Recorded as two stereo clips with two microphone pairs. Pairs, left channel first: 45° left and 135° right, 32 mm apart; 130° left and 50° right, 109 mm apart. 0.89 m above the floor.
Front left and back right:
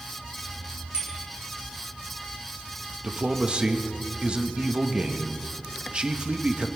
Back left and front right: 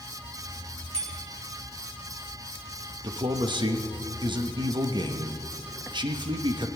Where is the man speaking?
85° right, 1.1 m.